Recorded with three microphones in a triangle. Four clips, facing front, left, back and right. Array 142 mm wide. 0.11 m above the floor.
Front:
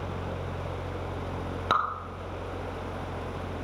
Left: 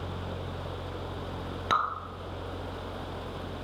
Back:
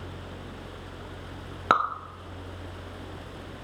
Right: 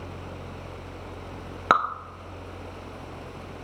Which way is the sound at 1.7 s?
120° right.